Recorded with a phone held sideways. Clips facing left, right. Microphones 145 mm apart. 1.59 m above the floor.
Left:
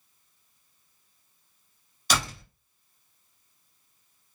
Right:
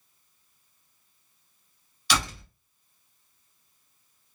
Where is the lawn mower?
I don't hear a lawn mower.